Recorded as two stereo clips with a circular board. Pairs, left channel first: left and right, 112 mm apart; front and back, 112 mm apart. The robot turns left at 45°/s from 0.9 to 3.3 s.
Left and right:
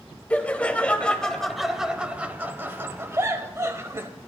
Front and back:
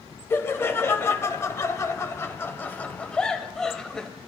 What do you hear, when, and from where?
0.3 s laughter: 30° left, 0.9 m; by 4.1 s 80° right, 0.9 m